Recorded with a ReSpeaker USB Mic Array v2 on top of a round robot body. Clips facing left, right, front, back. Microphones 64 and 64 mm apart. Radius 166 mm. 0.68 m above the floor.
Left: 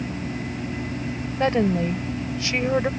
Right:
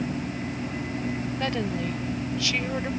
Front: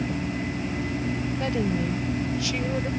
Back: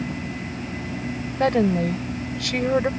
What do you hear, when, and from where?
1.4 s a woman speaking: 150° left